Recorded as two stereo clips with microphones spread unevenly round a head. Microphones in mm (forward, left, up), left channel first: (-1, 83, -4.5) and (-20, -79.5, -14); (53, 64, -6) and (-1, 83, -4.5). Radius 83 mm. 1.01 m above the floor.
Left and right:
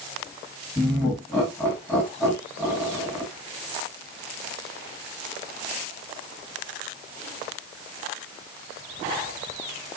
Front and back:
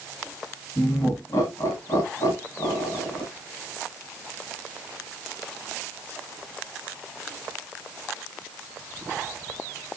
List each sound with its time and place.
0.8 s laughter: 5° left, 1.4 m